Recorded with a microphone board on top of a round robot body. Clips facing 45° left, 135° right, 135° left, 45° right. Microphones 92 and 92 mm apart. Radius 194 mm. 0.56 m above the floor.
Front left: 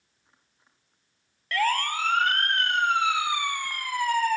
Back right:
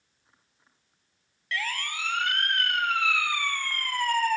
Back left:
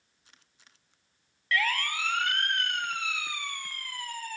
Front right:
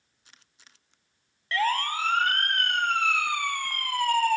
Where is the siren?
10° left; by 4.4 s 45° right.